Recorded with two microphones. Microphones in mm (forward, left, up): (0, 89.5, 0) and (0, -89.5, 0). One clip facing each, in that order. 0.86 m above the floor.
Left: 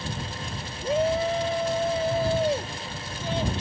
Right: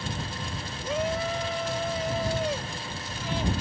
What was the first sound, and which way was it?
A shout, 30° left (ahead or behind).